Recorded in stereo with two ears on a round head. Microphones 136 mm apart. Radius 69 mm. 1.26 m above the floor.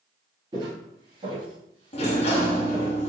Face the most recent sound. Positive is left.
turn(degrees=45)  # may be behind; listen again after turning